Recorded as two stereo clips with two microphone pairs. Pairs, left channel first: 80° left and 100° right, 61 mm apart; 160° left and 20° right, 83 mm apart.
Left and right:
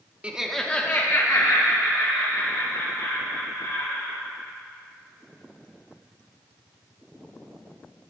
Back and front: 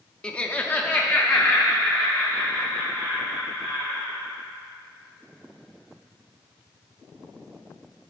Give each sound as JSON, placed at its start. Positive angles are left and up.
{"t": 0.2, "sound": "laughter", "azimuth_deg": -140, "distance_m": 0.6}